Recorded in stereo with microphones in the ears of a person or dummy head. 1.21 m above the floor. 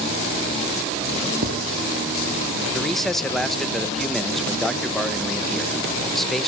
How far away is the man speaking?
About 1.0 m.